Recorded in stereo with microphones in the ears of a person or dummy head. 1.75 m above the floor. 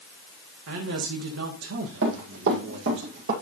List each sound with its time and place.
0.7 s a man speaking: 75° right (ahead or behind), 1.6 m
2.0 s running footsteps: 65° right (ahead or behind), 4.5 m; by 3.3 s 55° right (ahead or behind), 3.5 m